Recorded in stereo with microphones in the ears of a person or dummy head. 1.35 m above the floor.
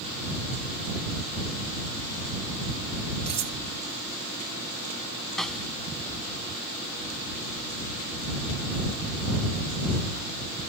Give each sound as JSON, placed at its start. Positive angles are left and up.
{"t": 3.3, "sound": "cutlery clinking", "side_deg": -30}
{"t": 5.4, "sound": "a snare drum", "side_deg": 0}